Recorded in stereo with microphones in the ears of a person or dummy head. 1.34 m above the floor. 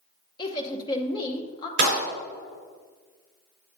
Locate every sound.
0.4 s a woman speaking: 25° left (ahead or behind), 0.8 m
1.8 s a clap: 70° right (ahead or behind), 3.5 m